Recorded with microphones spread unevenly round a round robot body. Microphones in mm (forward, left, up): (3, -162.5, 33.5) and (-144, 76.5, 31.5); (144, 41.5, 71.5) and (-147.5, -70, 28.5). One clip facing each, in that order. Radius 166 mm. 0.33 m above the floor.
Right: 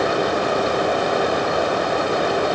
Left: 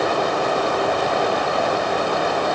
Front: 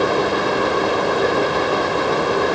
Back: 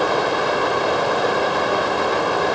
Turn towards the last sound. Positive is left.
No sound to turn to.